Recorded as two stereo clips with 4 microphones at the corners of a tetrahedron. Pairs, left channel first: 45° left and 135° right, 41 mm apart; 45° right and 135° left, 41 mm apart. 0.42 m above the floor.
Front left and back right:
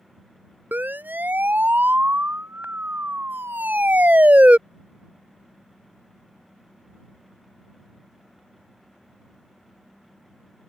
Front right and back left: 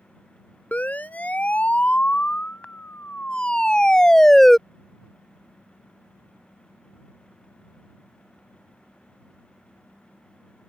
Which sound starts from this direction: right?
A siren, at 0.7 s.